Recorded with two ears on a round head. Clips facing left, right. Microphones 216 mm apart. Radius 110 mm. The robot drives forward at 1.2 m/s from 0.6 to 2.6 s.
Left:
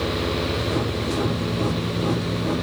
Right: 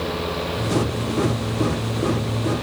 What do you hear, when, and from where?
Only background noise.